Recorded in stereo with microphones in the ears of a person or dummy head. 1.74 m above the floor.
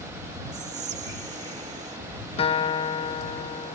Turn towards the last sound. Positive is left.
turn(degrees=35)  # may be behind; listen again after turning